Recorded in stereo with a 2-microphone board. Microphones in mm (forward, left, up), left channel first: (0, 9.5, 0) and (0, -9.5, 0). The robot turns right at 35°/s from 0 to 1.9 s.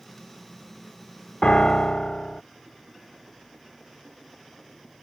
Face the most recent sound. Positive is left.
turn(degrees=65)  # may be behind; listen again after turning